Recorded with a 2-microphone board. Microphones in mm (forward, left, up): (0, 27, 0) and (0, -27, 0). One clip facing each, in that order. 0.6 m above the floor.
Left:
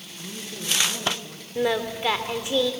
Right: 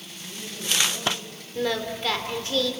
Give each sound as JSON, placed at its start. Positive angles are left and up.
{"t": 0.2, "sound": "a man speaking", "side_deg": 85, "distance_m": 7.5}
{"t": 1.6, "sound": "singing", "side_deg": 20, "distance_m": 1.7}